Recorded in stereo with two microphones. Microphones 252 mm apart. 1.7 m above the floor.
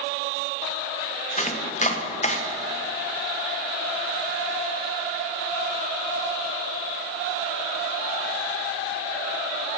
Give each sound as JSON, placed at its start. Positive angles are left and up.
{"t": 1.4, "sound": "chopping", "side_deg": 30, "distance_m": 1.0}